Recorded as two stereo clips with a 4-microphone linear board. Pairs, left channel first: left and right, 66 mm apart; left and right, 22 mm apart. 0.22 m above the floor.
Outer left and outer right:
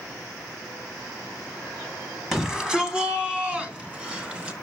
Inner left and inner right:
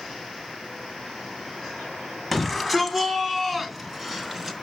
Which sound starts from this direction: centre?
A shout, at 2.3 s.